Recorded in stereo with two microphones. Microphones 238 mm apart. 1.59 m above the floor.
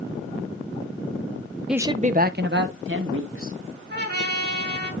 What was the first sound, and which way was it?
A man speaking, centre (ahead or behind).